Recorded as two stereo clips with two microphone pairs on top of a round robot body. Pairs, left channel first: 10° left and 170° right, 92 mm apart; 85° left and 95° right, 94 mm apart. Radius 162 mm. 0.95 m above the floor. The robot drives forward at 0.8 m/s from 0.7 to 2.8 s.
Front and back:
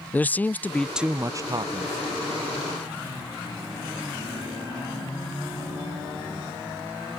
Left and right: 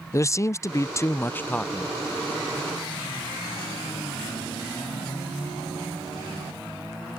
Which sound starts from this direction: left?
A man speaking, at 0.1 s.